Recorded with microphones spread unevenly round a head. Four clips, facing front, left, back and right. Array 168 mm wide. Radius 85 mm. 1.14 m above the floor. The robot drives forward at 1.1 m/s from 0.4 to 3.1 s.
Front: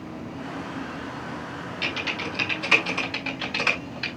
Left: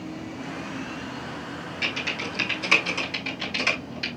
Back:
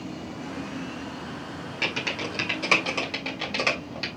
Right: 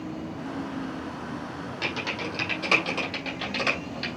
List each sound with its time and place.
1.8 s typing on a keyboard: 150° right, 2 m; by 4.1 s 165° right, 3.5 m